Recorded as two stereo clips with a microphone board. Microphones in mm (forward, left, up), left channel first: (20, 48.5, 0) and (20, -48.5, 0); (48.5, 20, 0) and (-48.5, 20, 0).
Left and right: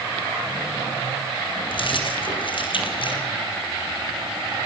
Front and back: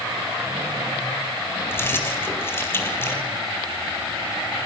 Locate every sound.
1.7 s keys jangling: 65° left, 3 m